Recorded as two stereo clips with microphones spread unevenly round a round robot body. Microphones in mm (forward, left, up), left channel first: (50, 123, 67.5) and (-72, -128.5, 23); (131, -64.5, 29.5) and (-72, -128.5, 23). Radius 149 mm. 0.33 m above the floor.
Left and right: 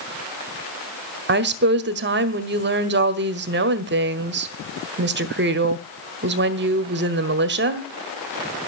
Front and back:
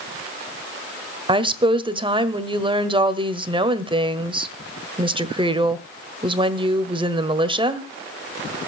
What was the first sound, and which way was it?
A woman speaking, 105° right.